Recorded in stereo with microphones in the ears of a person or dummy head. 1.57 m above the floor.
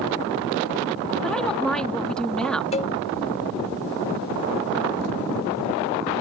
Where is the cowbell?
35° left (ahead or behind).